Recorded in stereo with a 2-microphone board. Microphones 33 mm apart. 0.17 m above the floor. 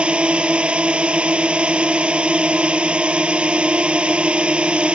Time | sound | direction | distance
0.0 | a drone | 35° right (ahead or behind) | ?